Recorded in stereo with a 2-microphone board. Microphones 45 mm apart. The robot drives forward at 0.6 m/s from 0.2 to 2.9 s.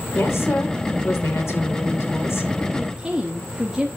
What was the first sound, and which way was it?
A woman speaking, 70° left (ahead or behind).